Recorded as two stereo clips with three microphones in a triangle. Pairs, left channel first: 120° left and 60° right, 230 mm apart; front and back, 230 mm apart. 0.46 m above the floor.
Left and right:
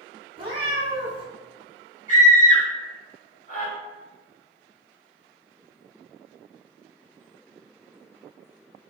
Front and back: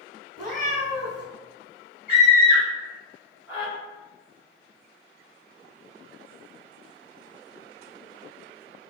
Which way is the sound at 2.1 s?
100° left.